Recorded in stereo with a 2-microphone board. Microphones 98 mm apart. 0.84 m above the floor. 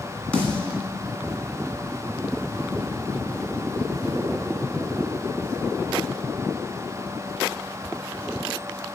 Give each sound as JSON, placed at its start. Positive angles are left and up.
{"t": 0.3, "sound": "a snare drum", "side_deg": 10, "distance_m": 1.8}